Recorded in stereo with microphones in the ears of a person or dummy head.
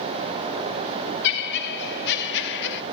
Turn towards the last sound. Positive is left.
turn(degrees=60)  # may be behind; listen again after turning